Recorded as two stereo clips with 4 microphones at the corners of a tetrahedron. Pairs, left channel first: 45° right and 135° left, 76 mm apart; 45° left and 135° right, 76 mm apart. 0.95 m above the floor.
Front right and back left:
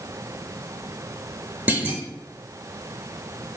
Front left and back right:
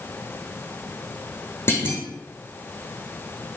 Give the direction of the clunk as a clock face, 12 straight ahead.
9 o'clock.